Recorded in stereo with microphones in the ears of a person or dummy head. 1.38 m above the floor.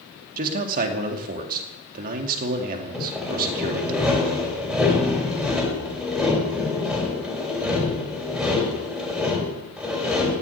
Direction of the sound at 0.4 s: 50° right (ahead or behind).